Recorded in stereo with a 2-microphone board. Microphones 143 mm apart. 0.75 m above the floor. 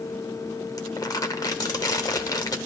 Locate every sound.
0.8 s crumpling: 25° left (ahead or behind), 1.0 m